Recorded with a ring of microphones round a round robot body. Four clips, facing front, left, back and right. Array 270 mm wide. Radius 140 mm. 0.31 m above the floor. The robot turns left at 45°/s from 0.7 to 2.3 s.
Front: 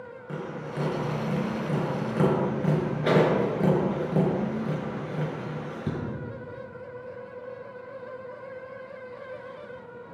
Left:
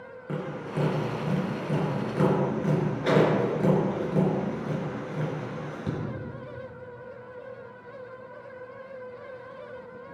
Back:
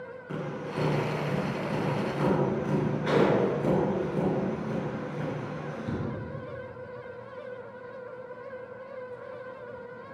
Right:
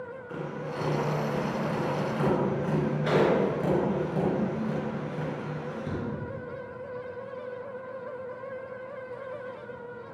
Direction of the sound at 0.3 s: 80° left.